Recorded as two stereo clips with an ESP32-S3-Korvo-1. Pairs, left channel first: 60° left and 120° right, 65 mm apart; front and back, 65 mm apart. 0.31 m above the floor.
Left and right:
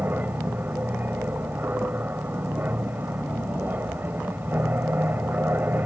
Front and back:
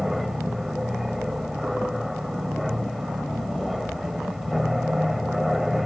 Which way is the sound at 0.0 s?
95° right.